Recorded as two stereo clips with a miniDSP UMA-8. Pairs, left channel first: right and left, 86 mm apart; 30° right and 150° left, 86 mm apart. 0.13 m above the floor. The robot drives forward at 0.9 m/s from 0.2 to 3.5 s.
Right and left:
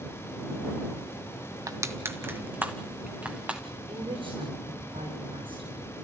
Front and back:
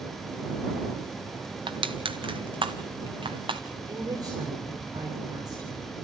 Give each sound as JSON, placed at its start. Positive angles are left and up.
{"t": 1.7, "sound": "crushing", "azimuth_deg": 140, "distance_m": 0.8}
{"t": 3.9, "sound": "a woman speaking", "azimuth_deg": 105, "distance_m": 8.5}